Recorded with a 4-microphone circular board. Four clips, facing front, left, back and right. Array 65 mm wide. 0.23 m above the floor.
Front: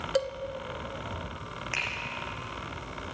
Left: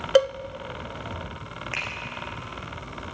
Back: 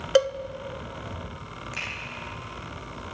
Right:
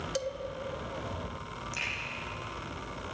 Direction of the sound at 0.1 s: 115° left.